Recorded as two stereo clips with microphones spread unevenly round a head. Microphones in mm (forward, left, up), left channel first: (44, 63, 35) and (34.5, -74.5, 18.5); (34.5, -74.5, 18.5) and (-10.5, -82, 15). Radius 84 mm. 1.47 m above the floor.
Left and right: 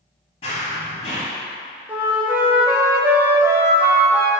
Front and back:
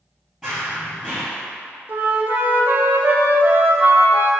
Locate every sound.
0.4 s running footsteps: 100° left, 1.8 m
1.9 s a flute: straight behind, 0.6 m